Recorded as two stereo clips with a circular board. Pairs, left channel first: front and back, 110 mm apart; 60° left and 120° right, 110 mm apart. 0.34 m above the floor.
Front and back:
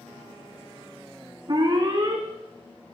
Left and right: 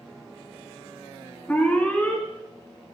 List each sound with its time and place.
1.5 s an alarm: 140° left, 3.5 m